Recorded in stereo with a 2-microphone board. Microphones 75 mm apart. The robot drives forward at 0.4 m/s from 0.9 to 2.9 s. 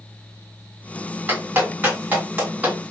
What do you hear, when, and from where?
1.3 s a clap: 25° right (ahead or behind), 2.0 m; by 2.8 s 20° right (ahead or behind), 2.5 m